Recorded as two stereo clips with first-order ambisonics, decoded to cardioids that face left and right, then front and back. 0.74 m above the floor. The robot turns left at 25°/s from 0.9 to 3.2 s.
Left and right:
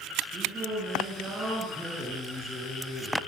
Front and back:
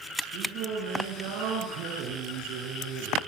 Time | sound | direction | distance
0.3 | singing | 155° right | 6.5 m